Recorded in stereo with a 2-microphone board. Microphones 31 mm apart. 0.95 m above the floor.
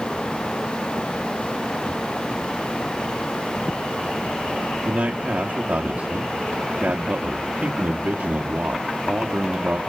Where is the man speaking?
80° right, 1.2 m.